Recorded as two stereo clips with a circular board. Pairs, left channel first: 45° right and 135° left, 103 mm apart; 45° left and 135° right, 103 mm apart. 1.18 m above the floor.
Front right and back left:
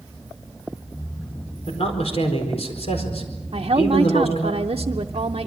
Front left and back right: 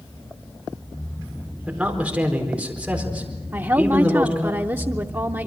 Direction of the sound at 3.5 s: 160° left.